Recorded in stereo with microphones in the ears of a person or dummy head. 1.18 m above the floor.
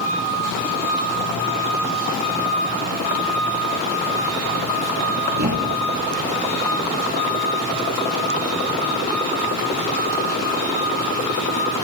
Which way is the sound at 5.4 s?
50° right (ahead or behind).